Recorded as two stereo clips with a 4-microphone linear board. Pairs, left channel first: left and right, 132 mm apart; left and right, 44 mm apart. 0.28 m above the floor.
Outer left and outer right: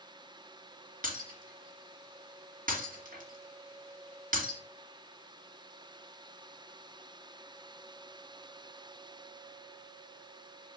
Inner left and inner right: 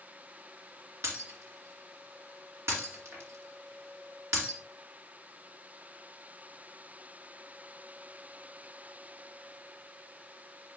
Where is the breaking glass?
75° right (ahead or behind), 2.5 m.